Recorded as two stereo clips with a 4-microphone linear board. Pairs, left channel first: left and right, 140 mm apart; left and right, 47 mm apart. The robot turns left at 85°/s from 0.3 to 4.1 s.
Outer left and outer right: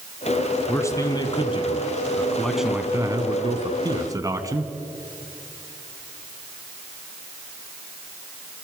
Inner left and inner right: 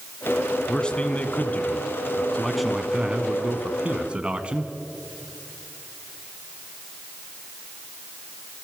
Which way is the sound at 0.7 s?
160° left.